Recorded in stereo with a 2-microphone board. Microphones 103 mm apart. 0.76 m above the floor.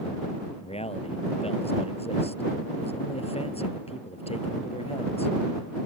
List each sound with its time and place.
0.6 s a man speaking: 80° left